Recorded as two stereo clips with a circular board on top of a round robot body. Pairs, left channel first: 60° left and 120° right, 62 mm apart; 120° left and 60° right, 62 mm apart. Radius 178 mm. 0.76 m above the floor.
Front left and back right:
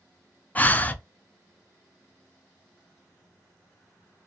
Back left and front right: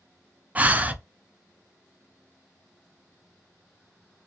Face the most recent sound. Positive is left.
turn(degrees=0)